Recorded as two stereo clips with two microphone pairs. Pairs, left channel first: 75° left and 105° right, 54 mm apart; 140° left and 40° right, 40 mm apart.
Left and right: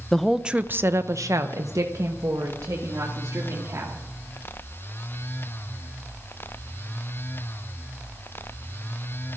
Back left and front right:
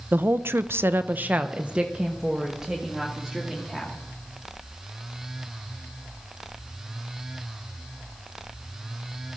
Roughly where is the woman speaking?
Ahead.